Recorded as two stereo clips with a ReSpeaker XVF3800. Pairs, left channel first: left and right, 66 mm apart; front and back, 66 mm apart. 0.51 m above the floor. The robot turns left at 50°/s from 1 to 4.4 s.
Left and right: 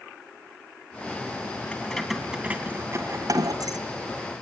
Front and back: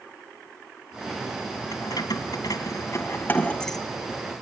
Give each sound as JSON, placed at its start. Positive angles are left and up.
{"t": 1.7, "sound": "keys jangling", "azimuth_deg": 15, "distance_m": 2.5}